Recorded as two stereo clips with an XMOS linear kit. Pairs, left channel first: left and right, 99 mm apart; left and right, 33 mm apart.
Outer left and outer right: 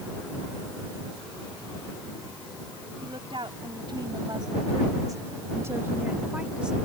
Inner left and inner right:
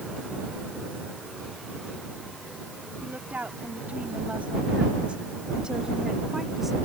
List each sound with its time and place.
3.0 s a woman speaking: 60° right (ahead or behind); by 6.7 s 5° right (ahead or behind)